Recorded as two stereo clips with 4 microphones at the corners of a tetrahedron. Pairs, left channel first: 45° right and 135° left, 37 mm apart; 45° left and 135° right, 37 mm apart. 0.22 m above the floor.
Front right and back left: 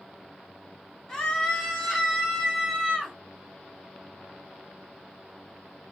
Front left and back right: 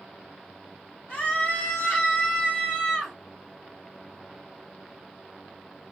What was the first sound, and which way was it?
A scream, 25° left.